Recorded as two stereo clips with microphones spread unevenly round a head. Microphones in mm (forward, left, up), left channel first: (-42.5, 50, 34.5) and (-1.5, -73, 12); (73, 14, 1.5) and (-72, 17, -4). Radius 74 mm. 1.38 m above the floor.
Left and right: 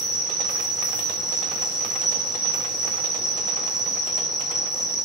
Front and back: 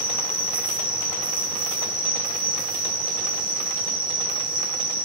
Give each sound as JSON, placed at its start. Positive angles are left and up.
{"t": 0.0, "sound": "an insect", "azimuth_deg": -155, "distance_m": 1.9}